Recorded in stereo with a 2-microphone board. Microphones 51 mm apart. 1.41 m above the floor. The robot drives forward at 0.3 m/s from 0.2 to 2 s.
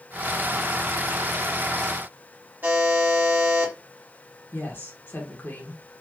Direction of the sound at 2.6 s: 35° right (ahead or behind).